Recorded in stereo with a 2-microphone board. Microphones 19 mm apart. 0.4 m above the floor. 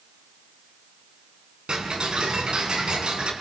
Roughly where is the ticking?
Right.